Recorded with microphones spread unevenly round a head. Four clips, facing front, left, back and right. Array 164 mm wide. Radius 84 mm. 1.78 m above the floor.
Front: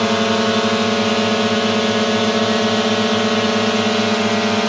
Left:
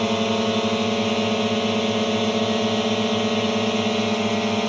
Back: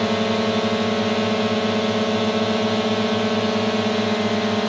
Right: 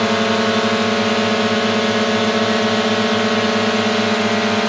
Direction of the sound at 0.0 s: 30° right.